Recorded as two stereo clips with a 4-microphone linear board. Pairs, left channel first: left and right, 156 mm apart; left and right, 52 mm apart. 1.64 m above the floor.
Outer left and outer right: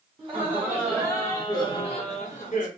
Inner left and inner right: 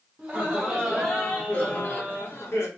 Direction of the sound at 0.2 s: 20° right (ahead or behind).